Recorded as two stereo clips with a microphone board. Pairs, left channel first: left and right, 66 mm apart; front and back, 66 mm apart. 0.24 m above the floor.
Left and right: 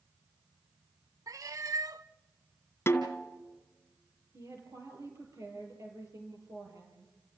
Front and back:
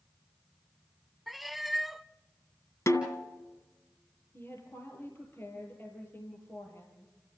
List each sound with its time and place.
1.3 s a cat meowing: 95° right, 0.6 m
2.9 s a snare drum: 40° left, 2.5 m
4.3 s a woman speaking: 55° right, 7 m